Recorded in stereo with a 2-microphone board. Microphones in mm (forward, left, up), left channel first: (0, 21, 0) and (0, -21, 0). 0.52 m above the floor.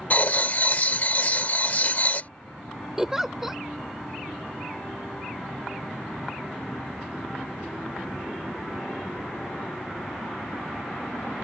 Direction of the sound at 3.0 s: 10° right (ahead or behind).